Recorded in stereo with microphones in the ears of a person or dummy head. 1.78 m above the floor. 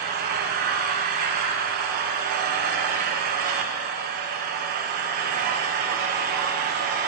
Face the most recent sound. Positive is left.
turn(degrees=-45)  # may be behind; listen again after turning